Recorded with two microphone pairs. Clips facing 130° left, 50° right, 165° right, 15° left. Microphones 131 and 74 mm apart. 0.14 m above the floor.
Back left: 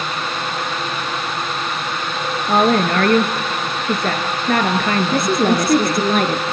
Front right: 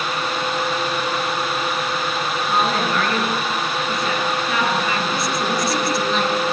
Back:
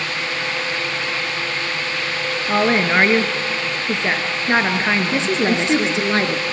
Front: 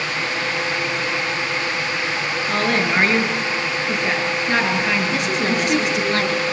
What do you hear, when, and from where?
2.5 s a woman speaking: 135° left, 2.5 m
5.1 s a woman speaking: 140° left, 2.0 m